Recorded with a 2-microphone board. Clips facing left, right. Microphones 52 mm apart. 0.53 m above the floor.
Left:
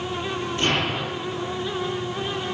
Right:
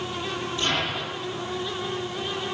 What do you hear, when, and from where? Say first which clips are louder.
0.6 s an explosion: left 4 dB; 50° left (ahead or behind), 7.5 m